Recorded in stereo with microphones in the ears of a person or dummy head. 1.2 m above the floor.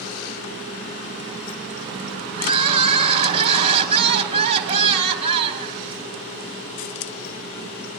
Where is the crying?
40° right (ahead or behind), 1.3 m.